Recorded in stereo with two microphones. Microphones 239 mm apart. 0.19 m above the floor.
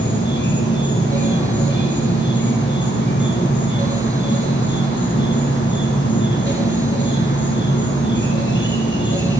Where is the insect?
55° left (ahead or behind), 1.1 m.